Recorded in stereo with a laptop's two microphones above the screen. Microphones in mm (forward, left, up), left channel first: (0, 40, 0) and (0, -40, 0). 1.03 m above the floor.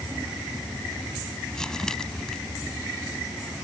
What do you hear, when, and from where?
1.5 s crumpling: 10° left (ahead or behind)